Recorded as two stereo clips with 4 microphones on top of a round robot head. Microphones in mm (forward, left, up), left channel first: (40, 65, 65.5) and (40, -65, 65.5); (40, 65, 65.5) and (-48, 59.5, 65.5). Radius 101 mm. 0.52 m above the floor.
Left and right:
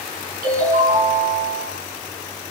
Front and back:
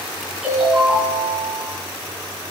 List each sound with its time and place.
0.4 s a ringtone: 90° right, 4 m